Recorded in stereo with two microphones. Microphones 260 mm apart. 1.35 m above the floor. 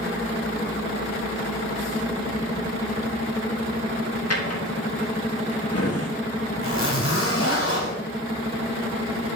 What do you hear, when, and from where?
4.3 s a drawer: 65° left (ahead or behind), 1.4 m
6.6 s a zipper: 55° left (ahead or behind), 1.9 m